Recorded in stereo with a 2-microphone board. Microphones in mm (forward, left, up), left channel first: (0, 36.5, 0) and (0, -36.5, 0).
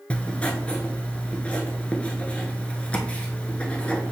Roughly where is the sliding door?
I don't hear a sliding door.